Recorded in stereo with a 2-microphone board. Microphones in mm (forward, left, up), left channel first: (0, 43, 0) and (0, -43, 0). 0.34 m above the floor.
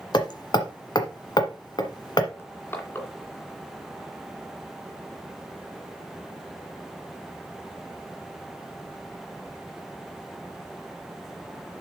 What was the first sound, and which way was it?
Hammering, 55° left (ahead or behind).